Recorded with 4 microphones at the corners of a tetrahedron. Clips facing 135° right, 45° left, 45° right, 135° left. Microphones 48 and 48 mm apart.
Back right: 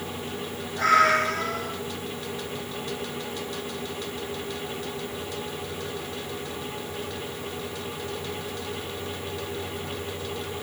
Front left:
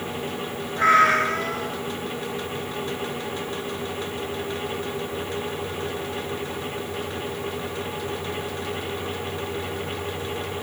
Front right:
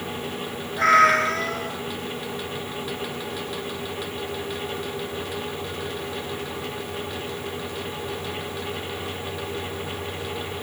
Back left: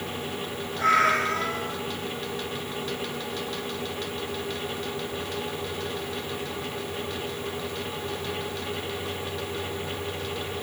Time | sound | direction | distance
0.8 | a cat meowing | 20° right | 0.6 m